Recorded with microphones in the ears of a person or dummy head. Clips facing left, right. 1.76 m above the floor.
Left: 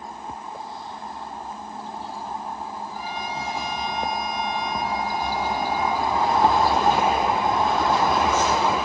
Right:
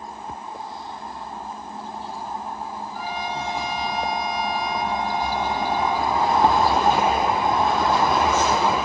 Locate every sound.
2.9 s a trumpet: 75° left (ahead or behind), 3 m